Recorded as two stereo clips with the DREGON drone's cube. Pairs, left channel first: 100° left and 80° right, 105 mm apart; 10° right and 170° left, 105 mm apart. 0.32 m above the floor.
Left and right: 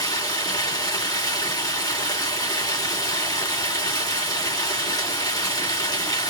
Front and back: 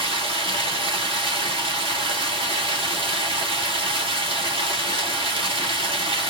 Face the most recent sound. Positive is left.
turn(degrees=150)